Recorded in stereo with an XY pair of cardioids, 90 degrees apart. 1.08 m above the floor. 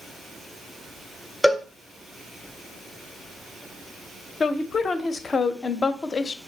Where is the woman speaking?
40° left, 0.5 m.